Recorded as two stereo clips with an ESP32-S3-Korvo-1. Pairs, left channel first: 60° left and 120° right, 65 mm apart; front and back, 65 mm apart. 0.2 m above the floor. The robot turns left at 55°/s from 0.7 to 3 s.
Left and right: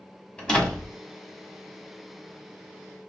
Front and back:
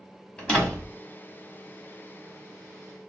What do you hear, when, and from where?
0.4 s a door slam: 30° left, 1.0 m; by 0.9 s 15° left, 1.0 m